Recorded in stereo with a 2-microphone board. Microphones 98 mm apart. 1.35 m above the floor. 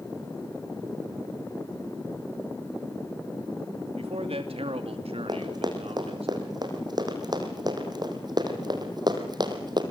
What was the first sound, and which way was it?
A man speaking, 90° right.